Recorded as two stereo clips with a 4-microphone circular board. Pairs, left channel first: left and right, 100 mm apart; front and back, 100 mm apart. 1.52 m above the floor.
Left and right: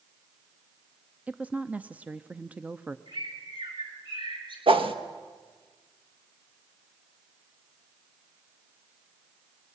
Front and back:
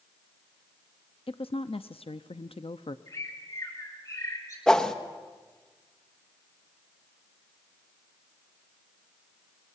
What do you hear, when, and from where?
1.3 s a woman speaking: 15° right, 0.6 m
3.1 s a bird: 55° right, 4 m
4.7 s a whoosh: 80° right, 1.2 m